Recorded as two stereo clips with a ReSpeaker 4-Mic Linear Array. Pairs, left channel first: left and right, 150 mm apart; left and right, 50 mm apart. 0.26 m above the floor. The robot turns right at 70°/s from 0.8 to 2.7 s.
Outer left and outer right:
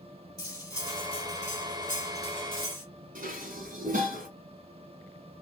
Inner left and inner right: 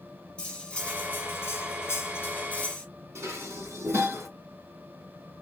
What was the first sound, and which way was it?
Cutlery clinking, 30° left.